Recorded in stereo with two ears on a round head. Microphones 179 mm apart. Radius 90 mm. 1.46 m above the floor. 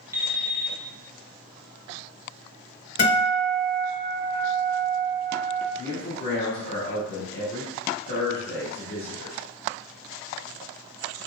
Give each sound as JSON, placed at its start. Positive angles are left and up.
{"t": 0.1, "sound": "an alarm clock", "side_deg": -15, "distance_m": 0.6}
{"t": 3.0, "sound": "a guitar", "side_deg": 40, "distance_m": 1.8}
{"t": 5.7, "sound": "a man speaking", "side_deg": 50, "distance_m": 1.6}